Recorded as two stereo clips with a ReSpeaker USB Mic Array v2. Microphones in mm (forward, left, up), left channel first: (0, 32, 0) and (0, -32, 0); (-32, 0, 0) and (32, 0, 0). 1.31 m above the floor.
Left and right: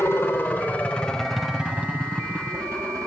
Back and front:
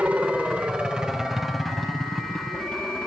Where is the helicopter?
60° left; by 3.1 s 115° right.